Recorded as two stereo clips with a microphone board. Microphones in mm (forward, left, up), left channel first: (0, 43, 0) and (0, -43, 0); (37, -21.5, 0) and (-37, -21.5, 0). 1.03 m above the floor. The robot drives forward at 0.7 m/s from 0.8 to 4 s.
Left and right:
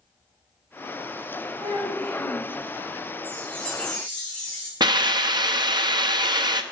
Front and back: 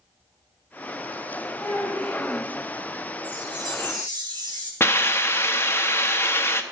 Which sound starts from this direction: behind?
A chime, at 3.2 s.